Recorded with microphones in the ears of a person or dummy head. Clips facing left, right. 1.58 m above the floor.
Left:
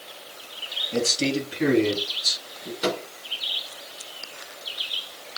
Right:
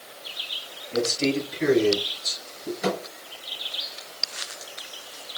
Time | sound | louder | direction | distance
0.9 | a man speaking | even | 65° left (ahead or behind) | 3.5 m
2.8 | a microwave | left 1 dB | 70° left (ahead or behind) | 3.5 m